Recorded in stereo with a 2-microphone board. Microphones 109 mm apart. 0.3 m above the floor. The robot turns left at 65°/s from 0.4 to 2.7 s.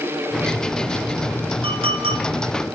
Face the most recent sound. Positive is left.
turn(degrees=-135)